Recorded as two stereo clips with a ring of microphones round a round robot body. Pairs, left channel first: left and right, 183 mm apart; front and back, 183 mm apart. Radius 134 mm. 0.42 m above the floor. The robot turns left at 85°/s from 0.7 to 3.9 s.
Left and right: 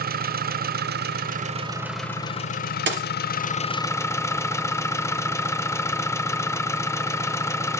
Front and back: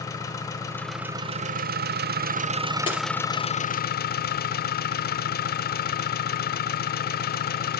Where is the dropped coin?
70° right, 3 m; by 3.1 s 90° right, 3 m.